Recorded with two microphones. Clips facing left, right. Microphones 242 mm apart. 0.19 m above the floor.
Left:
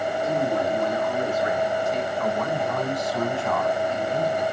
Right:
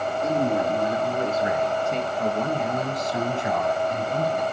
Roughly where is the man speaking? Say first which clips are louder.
Right 2 dB; right.